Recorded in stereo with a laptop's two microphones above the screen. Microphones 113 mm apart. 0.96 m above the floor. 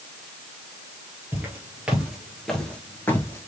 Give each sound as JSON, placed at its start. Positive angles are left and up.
{"t": 1.3, "sound": "footsteps", "side_deg": -15, "distance_m": 1.4}